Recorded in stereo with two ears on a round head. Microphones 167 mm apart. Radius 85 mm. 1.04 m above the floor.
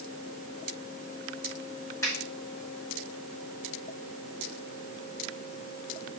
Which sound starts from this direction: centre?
A finger snap, at 2.0 s.